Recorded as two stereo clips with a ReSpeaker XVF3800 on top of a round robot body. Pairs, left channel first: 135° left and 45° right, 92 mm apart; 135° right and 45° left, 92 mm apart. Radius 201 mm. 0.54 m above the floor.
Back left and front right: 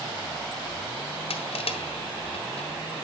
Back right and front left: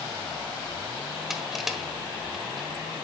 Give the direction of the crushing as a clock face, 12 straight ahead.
8 o'clock.